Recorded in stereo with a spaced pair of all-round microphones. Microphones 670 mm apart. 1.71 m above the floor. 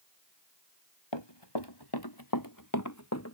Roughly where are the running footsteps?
Left.